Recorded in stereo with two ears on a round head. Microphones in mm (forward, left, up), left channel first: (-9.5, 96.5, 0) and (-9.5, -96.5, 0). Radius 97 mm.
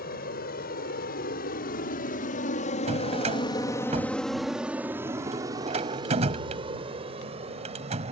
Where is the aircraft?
45° left (ahead or behind); by 8.1 s 30° right (ahead or behind).